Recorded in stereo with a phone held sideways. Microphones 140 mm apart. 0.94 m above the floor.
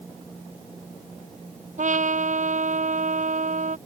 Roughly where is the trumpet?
Right.